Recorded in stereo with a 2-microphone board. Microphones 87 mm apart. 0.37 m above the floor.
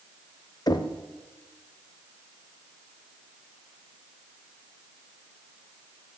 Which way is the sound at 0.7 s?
50° left (ahead or behind).